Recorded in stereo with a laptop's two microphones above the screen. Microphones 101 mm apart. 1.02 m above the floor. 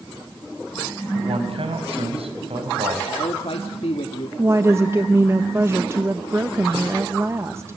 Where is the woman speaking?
25° right (ahead or behind), 1.1 m.